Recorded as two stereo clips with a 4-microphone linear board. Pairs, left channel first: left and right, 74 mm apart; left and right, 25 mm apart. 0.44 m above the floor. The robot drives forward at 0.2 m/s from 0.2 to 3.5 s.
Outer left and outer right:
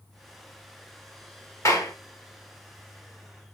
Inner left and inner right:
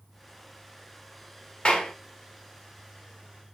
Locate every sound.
1.6 s a clap: 45° left (ahead or behind), 0.9 m